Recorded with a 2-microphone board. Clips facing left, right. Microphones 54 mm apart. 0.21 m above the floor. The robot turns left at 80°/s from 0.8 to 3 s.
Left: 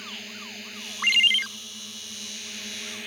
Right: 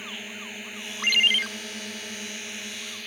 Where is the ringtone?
25° left; by 1.5 s 10° right.